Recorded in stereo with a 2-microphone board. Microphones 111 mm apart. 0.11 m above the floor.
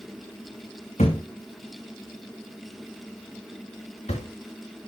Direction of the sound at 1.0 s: 85° left.